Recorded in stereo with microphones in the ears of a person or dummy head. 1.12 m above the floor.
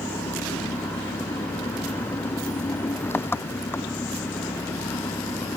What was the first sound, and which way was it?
An engine running, 10° left (ahead or behind).